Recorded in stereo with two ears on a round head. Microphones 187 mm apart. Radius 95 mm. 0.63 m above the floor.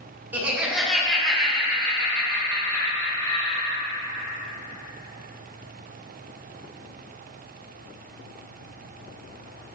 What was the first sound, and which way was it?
Laughter, 10° right (ahead or behind).